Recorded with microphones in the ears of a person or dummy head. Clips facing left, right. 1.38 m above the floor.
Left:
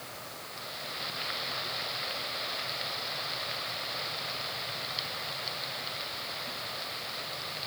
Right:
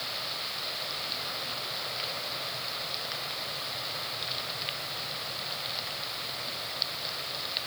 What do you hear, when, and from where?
Only background noise.